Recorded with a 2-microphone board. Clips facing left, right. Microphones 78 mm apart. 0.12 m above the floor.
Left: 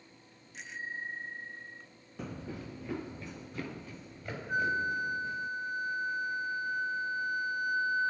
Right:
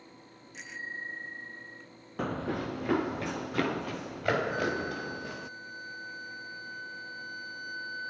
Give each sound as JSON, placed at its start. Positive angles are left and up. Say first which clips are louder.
{"t": 0.5, "sound": "a bicycle bell", "louder": "even", "side_deg": 0}
{"t": 2.2, "sound": "running footsteps", "louder": "right 9 dB", "side_deg": -65}
{"t": 4.5, "sound": "a flute", "louder": "left 1 dB", "side_deg": 45}